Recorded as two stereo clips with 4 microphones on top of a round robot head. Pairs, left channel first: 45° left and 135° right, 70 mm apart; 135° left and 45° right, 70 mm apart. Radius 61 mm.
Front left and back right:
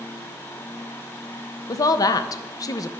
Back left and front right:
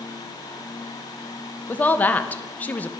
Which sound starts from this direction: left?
A woman speaking, at 1.7 s.